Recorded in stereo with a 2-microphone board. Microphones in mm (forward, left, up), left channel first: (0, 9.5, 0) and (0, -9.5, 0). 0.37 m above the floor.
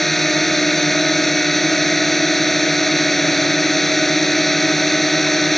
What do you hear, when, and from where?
0.0 s a drone: 10° left (ahead or behind)